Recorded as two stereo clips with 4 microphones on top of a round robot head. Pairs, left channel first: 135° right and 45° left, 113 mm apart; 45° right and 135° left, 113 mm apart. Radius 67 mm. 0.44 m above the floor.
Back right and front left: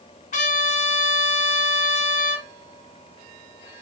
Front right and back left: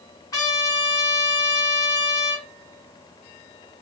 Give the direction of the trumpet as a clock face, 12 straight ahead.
4 o'clock.